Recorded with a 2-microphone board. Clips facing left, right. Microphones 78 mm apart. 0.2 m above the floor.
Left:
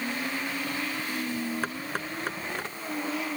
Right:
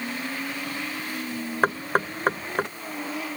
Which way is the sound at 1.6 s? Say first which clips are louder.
Right 9 dB; 50° right (ahead or behind).